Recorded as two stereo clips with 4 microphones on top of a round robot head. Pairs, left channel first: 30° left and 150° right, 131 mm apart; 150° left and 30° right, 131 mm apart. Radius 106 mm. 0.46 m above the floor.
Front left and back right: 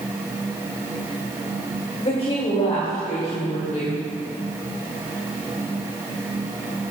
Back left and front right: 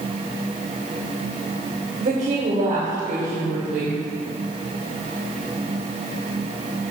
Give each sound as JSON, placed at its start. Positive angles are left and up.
{"t": 2.0, "sound": "a woman speaking", "azimuth_deg": -20, "distance_m": 2.5}